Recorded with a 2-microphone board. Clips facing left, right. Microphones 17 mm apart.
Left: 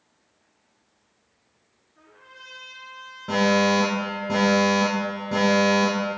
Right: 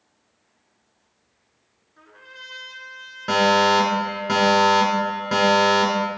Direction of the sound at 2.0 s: 30° right (ahead or behind).